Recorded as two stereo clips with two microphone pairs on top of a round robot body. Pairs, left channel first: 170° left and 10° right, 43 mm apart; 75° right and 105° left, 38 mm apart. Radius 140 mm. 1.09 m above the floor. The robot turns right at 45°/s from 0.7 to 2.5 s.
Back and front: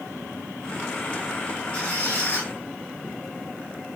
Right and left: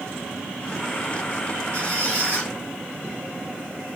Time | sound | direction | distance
1.7 | a squeak | 105° left | 1.4 m